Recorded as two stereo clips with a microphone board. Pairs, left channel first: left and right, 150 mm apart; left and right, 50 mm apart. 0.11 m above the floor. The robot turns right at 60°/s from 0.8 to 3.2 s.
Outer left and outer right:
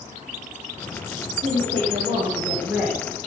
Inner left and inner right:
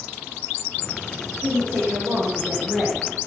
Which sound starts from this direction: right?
A woman speaking, at 1.4 s.